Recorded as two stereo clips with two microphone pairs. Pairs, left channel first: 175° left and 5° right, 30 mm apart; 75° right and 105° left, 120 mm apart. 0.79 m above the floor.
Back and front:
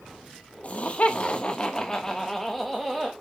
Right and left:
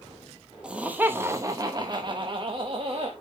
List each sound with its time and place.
0.6 s laughter: 175° right, 0.9 m; by 3.1 s 75° left, 1.1 m